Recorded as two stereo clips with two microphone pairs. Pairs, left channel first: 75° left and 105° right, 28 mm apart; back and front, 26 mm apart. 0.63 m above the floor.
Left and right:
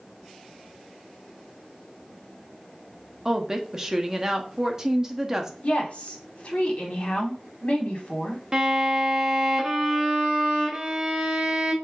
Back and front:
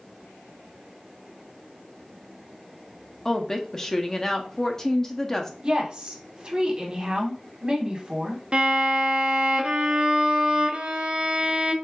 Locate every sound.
3.2 s a woman speaking: 140° right, 0.5 m
5.6 s a woman speaking: 45° left, 1.2 m
8.5 s a violin: 40° right, 0.6 m